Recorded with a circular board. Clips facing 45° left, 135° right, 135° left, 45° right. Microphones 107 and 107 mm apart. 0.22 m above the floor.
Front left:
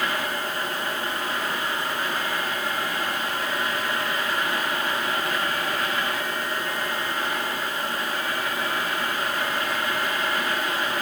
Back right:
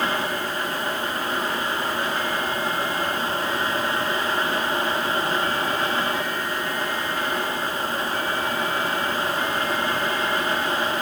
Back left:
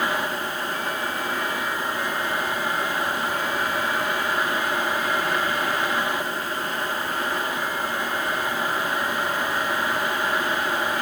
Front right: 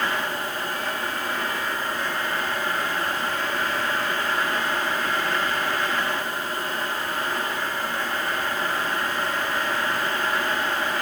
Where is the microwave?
No microwave in this recording.